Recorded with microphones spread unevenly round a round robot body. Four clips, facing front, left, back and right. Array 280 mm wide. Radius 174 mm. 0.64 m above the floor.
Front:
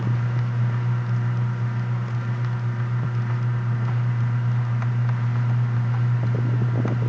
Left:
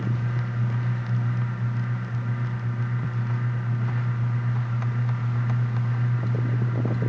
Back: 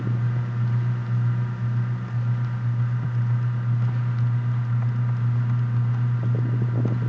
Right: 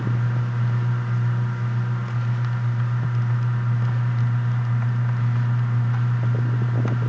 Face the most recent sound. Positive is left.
No sound to turn to.